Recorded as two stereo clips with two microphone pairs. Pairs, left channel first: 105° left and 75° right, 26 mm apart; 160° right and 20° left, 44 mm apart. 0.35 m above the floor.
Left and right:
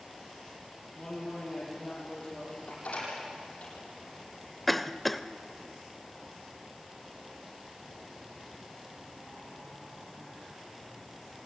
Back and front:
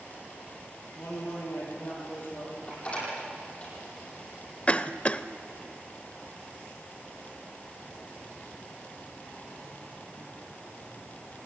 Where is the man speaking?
170° left, 8 m.